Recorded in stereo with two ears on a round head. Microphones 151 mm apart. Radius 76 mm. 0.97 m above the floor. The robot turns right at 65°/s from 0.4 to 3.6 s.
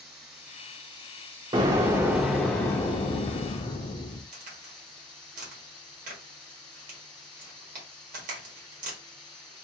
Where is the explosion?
50° right, 0.6 m; by 4.2 s 85° left, 0.6 m.